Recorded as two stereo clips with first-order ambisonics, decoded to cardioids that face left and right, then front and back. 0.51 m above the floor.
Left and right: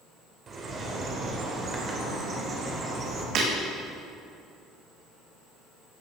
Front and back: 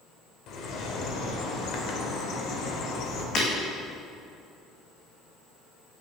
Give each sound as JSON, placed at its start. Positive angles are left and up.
{"t": 0.5, "sound": "a bird", "azimuth_deg": -30, "distance_m": 2.5}
{"t": 3.4, "sound": "breaking glass", "azimuth_deg": -50, "distance_m": 3.5}